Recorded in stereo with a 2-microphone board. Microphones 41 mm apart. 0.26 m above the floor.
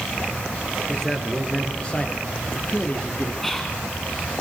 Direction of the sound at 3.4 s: 10° left (ahead or behind).